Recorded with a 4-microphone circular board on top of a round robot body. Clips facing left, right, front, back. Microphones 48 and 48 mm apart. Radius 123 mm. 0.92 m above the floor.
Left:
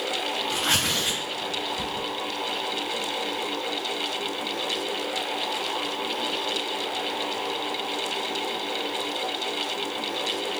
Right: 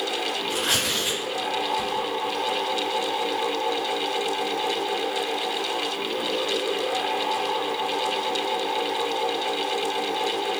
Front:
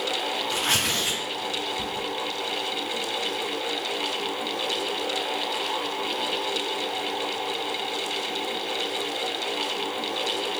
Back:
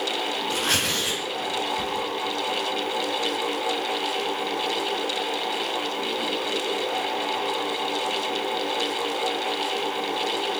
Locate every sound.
0.5 s tearing paper: 150° left, 1.5 m